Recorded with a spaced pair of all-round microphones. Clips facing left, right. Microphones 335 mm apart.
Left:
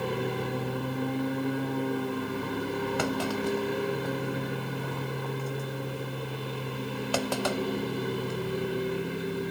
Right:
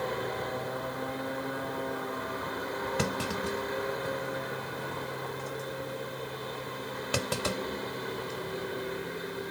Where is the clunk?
30° right (ahead or behind).